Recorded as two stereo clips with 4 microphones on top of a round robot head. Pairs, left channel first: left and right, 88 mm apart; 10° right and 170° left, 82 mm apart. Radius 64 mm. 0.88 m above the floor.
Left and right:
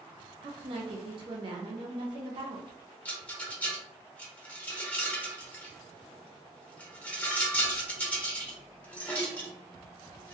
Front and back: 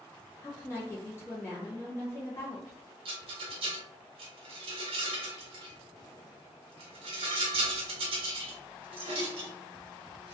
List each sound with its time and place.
0.4 s a woman speaking: 70° right, 0.7 m
3.0 s a rattle: 165° left, 0.7 m